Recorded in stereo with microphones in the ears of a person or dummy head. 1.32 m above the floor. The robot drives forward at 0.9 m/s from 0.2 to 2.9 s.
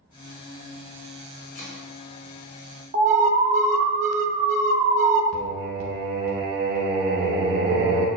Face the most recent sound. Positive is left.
turn(degrees=-50)  # may be behind; listen again after turning